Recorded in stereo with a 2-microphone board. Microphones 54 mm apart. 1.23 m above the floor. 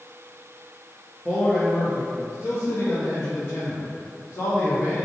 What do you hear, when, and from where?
1.2 s a man speaking: 10° left (ahead or behind), 0.9 m; by 5.0 s 40° left (ahead or behind), 1.9 m